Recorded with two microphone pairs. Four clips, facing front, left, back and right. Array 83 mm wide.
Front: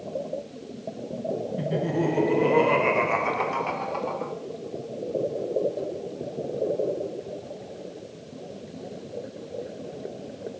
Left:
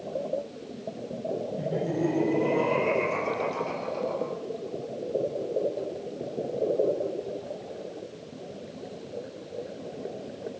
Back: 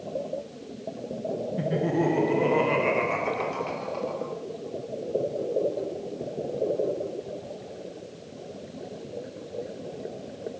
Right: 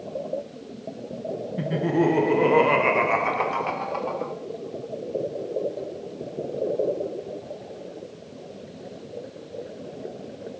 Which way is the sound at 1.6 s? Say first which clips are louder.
Right 7 dB, back 2 dB; 120° right.